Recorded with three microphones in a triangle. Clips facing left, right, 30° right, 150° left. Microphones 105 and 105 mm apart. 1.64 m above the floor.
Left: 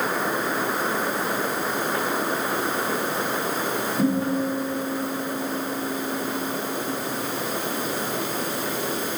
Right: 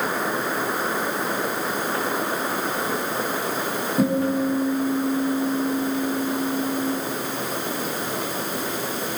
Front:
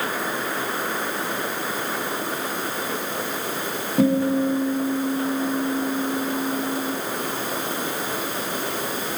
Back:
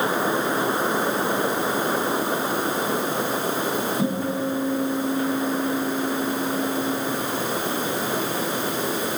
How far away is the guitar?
About 4 m.